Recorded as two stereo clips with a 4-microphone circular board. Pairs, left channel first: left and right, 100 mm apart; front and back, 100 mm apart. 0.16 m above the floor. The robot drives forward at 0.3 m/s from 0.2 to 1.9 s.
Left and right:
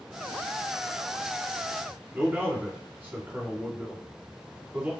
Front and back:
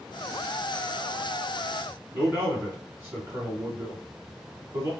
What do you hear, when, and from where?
2.1 s a man speaking: 145° right, 1.9 m